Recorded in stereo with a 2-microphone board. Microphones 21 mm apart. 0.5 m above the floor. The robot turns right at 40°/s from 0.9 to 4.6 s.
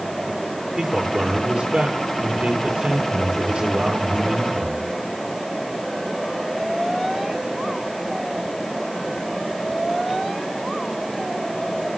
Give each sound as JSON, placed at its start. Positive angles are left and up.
{"t": 0.8, "sound": "a man speaking", "azimuth_deg": -160, "distance_m": 8.0}